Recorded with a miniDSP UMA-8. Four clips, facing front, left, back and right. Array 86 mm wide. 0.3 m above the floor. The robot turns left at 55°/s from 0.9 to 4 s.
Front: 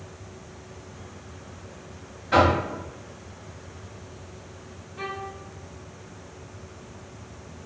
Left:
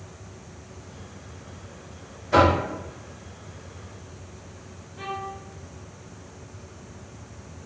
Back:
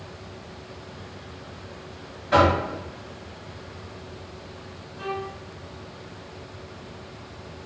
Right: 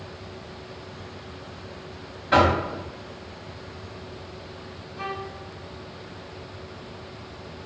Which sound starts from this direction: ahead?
A violin, at 5.0 s.